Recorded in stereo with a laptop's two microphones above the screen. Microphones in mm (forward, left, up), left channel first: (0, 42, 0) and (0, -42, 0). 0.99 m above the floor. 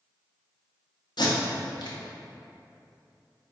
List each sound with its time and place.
1.2 s tape being pulled: 65° left (ahead or behind), 0.6 m